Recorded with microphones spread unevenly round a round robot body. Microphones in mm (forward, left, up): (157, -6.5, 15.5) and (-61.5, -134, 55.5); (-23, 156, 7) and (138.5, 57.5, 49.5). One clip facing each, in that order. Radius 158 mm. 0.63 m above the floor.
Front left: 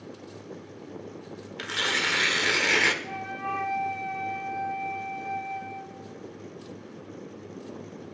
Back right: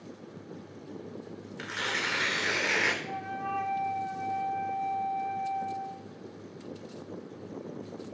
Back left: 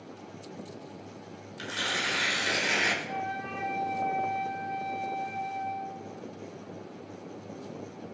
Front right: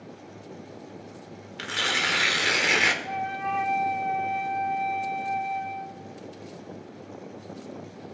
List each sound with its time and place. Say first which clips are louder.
1.6 s tearing paper: front left 5 dB, front right 3 dB; 10° right, 1.3 m
3.0 s a flute: front left 1 dB, front right 4 dB; 5° right, 0.8 m